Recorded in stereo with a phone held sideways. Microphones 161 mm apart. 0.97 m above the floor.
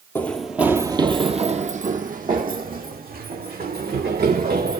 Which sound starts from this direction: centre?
Running footsteps, at 0.1 s.